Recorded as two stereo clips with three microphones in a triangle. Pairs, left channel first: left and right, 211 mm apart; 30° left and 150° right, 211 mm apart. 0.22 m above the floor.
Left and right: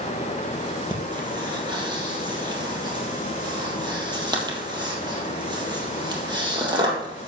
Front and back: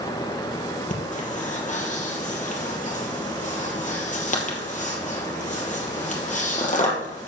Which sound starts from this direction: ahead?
Breathing, at 0.9 s.